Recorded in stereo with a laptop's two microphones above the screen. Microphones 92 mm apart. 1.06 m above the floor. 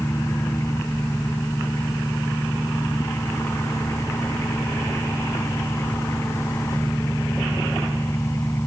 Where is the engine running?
30° left (ahead or behind).